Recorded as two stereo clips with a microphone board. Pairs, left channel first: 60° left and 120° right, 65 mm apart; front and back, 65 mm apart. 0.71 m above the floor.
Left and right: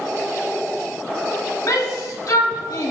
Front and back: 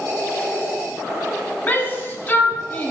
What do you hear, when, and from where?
1.7 s a shout: 60° left, 1.5 m